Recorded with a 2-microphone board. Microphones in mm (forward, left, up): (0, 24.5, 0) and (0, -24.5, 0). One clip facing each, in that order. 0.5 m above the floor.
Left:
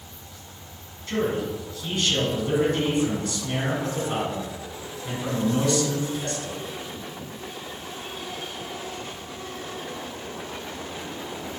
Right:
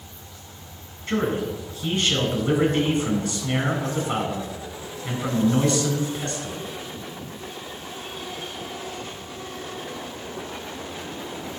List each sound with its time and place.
1.1 s a man speaking: 30° right (ahead or behind), 4 m